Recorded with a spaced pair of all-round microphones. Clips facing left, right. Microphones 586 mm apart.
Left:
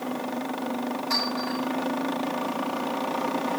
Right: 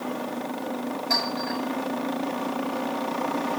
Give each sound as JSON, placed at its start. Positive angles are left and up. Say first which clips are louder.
{"t": 1.1, "sound": "a clink", "louder": "even", "side_deg": -15, "distance_m": 6.5}